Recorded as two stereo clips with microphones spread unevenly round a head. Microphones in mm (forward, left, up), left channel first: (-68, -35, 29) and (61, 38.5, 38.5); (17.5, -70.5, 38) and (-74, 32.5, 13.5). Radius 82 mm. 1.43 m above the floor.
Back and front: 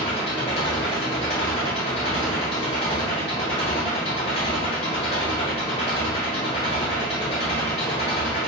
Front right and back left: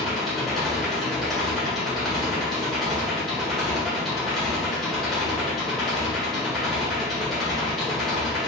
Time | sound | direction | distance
0.0 | an engine running | 120° right | 1.2 m